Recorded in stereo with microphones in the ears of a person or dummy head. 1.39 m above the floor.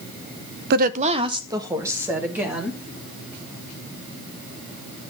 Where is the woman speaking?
60° right (ahead or behind), 0.7 m; by 2.8 s 10° right (ahead or behind), 2.5 m.